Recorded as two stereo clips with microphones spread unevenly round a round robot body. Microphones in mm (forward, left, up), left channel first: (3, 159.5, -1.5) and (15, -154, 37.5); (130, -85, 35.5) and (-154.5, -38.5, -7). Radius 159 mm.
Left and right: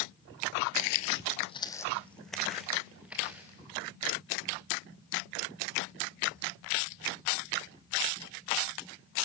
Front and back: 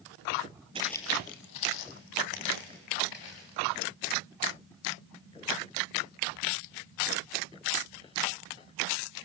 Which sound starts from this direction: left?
Footsteps, at 0.8 s.